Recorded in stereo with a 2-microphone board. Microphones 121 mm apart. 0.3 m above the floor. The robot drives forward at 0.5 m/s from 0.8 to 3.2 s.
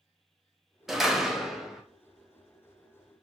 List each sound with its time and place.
0.9 s a door slam: centre (ahead or behind), 0.5 m